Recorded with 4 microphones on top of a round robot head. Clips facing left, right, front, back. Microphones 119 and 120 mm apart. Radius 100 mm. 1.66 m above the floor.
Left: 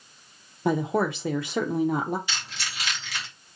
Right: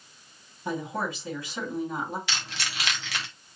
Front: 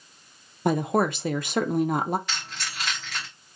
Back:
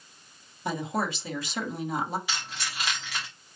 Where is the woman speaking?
35° left, 0.7 m.